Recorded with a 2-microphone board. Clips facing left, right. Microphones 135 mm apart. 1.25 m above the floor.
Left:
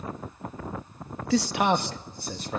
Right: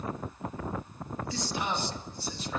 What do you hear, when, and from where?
1.3 s a man speaking: 75° left (ahead or behind), 1.4 m; by 2.6 s 45° left (ahead or behind), 1.4 m